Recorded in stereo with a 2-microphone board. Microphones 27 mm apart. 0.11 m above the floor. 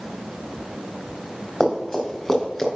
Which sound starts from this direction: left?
Running footsteps, at 1.6 s.